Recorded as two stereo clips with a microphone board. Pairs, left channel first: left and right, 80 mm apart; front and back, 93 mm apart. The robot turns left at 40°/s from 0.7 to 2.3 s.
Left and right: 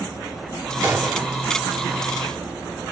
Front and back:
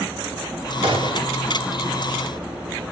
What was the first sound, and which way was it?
A gunshot, 155° right.